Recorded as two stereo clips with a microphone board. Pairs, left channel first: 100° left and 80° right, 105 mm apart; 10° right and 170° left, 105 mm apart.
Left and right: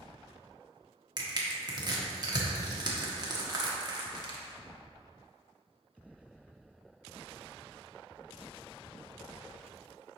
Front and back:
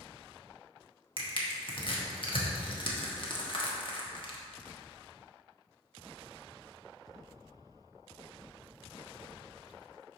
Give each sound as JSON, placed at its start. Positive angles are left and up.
{"t": 1.2, "sound": "crushing", "azimuth_deg": -40, "distance_m": 1.1}